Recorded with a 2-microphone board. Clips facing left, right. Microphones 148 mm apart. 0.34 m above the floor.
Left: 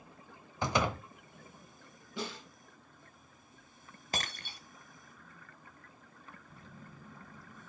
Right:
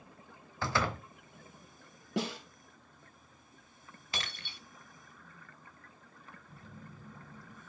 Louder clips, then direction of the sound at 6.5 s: Right 4 dB; 10° right (ahead or behind).